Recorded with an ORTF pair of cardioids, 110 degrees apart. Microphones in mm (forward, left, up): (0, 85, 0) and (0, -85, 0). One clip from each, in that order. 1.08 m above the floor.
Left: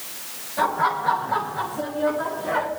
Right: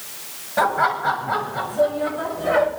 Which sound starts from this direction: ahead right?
Laughter, at 0.6 s.